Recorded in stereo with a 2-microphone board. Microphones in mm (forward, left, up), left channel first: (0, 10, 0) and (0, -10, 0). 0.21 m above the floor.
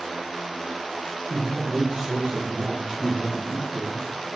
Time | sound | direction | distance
1.3 | a man speaking | 60° right (ahead or behind) | 3.5 m